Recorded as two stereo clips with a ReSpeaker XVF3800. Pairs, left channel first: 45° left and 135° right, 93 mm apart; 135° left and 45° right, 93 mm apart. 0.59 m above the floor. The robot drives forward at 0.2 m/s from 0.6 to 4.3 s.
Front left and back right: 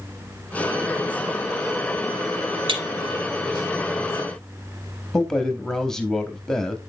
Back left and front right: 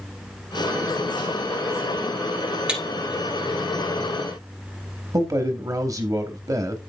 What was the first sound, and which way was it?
Breaking glass, 125° right.